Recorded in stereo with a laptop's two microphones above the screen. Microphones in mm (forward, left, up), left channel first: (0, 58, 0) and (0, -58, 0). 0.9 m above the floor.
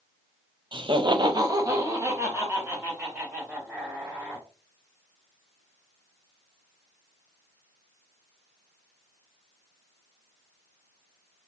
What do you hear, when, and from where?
0.7 s laughter: 40° right (ahead or behind), 0.6 m; by 4.5 s 15° right (ahead or behind), 3.5 m